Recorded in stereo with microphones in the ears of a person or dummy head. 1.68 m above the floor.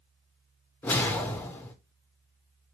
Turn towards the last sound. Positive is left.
turn(degrees=10)  # may be behind; listen again after turning